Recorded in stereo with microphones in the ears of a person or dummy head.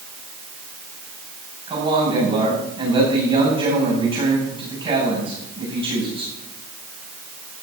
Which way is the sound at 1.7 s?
35° right (ahead or behind).